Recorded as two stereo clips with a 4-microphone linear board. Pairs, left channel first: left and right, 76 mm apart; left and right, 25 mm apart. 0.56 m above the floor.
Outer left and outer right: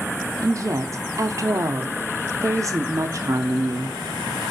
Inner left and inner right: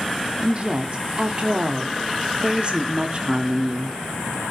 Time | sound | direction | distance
0.4 | a woman speaking | 40° right (ahead or behind) | 0.8 m